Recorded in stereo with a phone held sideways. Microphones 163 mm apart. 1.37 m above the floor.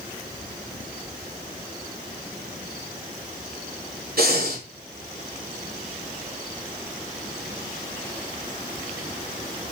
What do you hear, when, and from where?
4.2 s breathing: 70° right (ahead or behind), 3 m